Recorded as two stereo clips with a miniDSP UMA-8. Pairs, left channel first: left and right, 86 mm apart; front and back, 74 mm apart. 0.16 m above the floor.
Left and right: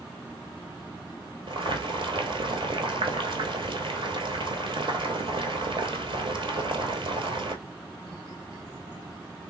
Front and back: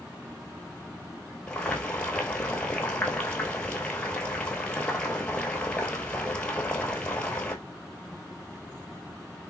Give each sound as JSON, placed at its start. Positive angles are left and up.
{"t": 1.5, "sound": "boiling", "azimuth_deg": -75, "distance_m": 0.9}